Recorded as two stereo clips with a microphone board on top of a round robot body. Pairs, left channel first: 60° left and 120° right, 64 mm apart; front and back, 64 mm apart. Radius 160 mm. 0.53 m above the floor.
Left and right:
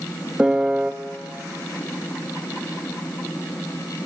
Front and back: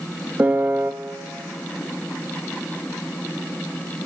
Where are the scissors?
I don't hear scissors.